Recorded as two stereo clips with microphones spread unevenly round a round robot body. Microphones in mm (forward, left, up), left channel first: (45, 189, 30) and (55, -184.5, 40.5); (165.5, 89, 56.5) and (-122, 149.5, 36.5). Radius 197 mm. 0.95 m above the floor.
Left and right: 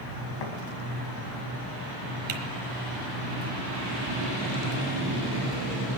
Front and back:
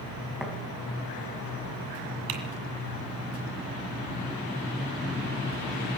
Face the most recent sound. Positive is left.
turn(degrees=-155)